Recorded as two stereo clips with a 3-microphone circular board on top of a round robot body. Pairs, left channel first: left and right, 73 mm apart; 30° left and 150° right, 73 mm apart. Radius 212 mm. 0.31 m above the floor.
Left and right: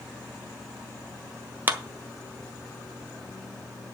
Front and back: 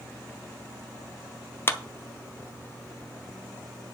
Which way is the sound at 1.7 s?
25° right.